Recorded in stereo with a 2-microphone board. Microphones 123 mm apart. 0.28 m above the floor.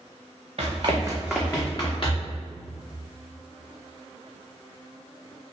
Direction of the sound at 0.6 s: 60° right (ahead or behind).